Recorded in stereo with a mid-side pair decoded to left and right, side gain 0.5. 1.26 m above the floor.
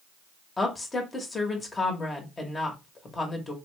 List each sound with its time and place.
0.6 s a woman speaking: 25° left, 1.0 m